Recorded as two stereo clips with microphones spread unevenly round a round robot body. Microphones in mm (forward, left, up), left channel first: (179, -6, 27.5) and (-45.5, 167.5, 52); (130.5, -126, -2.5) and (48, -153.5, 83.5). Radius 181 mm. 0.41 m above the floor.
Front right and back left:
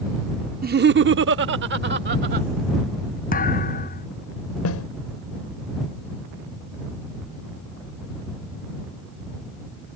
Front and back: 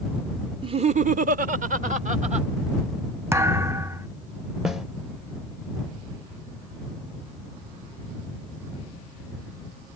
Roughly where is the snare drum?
Ahead right.